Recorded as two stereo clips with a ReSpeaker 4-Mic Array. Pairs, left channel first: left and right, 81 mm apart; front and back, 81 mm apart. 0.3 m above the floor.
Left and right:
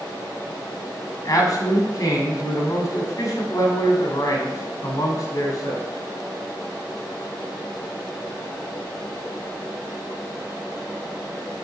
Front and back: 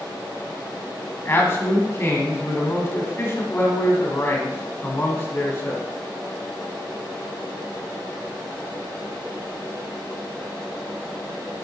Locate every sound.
1.2 s a man speaking: 55° left, 1.9 m